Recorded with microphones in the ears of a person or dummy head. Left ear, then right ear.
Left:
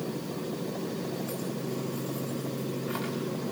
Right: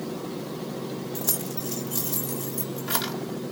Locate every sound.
1.1 s keys jangling: 60° right (ahead or behind), 3 m